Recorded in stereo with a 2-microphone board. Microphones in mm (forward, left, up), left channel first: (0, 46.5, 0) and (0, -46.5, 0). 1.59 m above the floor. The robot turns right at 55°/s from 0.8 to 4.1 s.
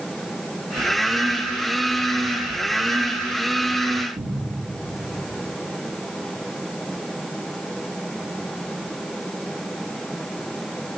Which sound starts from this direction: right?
A cupboard door, at 4.2 s.